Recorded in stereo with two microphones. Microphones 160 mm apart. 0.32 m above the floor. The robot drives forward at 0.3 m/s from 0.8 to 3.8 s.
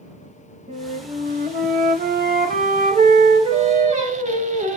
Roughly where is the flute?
Right.